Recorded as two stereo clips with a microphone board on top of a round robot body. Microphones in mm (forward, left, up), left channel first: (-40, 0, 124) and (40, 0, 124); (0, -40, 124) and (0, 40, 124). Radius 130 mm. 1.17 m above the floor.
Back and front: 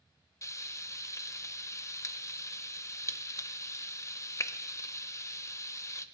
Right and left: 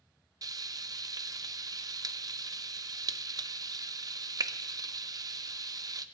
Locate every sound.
0.4 s frying: 130° left, 0.5 m